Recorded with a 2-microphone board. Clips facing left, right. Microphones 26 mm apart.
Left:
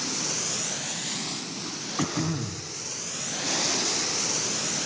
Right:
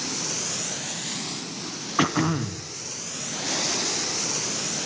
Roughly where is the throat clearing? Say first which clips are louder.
Right 6 dB; right.